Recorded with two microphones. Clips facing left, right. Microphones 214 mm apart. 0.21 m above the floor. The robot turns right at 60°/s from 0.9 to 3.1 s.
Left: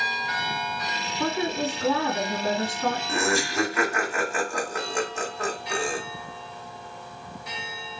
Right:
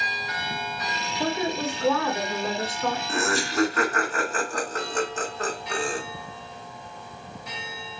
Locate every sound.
1.2 s a woman speaking: 25° right, 2 m; by 3.0 s 80° left, 2 m
3.1 s laughter: 10° left (ahead or behind), 1.1 m